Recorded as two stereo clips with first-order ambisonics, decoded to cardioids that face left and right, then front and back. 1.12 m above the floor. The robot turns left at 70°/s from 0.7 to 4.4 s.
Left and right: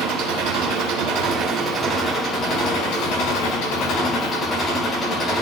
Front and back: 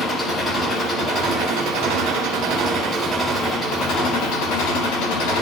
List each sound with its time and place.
0.0 s an engine running: 85° right, 8 m; by 5.4 s 15° left, 8 m